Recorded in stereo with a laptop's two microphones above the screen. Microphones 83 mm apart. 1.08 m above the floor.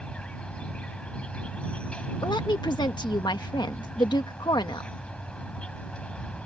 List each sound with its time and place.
0.0 s an insect: 15° left (ahead or behind)
2.2 s a woman speaking: 65° left (ahead or behind)